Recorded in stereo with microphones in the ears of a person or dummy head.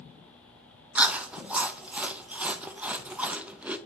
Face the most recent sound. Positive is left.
turn(degrees=-10)  # may be behind; listen again after turning